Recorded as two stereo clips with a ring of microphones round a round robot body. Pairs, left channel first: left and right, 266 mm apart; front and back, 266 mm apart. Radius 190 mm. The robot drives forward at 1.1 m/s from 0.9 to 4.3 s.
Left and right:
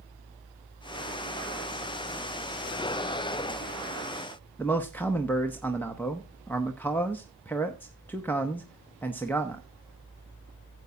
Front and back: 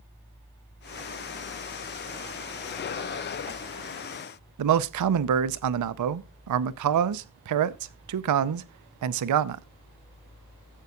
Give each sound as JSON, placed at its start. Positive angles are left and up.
{"t": 4.6, "sound": "a man speaking", "azimuth_deg": 175, "distance_m": 0.7}